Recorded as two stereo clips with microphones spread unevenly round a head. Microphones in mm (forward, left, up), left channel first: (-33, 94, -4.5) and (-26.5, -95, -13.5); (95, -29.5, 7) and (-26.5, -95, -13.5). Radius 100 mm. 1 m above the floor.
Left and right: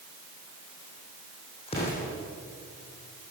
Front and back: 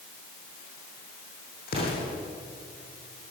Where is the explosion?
30° left, 8.5 m.